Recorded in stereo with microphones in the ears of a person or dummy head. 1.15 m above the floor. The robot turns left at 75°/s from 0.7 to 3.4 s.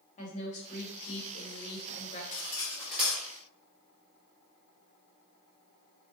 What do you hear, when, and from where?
0.2 s a woman speaking: 140° left, 0.8 m; by 2.2 s 30° left, 0.8 m
2.3 s cutlery clinking: 45° left (ahead or behind), 1.2 m; by 3.2 s 20° right (ahead or behind), 1.2 m